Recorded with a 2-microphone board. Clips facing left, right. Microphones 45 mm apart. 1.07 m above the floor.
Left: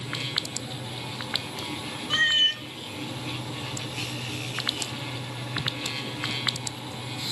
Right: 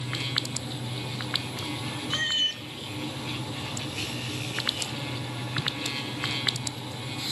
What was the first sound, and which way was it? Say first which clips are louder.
A cat meowing: left 6 dB; 35° left (ahead or behind).